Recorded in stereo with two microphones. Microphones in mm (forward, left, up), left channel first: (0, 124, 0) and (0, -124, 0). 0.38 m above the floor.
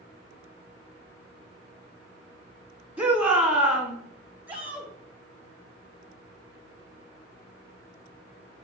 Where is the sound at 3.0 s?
5° right (ahead or behind), 3 m.